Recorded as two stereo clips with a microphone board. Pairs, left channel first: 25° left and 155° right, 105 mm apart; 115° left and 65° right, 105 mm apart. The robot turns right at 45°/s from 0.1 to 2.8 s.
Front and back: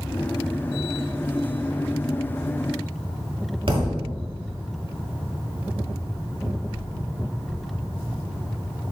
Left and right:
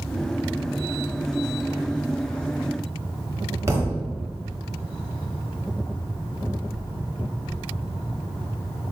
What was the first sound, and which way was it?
A thud, 130° right.